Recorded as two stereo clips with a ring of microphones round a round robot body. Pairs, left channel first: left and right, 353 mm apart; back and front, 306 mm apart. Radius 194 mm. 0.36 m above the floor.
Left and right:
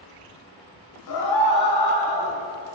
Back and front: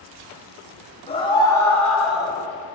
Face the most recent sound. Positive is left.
turn(degrees=85)